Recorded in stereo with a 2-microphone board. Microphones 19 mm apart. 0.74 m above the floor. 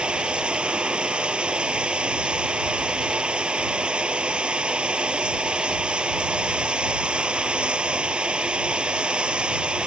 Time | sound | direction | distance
0.0 | running water | 80° right | ?